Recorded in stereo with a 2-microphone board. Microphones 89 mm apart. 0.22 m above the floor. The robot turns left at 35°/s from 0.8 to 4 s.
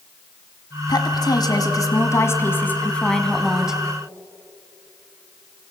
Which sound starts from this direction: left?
A woman speaking, at 0.9 s.